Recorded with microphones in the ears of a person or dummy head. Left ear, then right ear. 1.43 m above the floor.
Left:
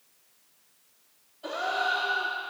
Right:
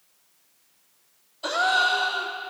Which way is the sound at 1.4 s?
50° right (ahead or behind).